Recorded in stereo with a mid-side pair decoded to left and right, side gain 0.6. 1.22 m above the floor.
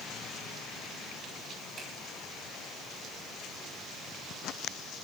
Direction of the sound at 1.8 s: 35° right.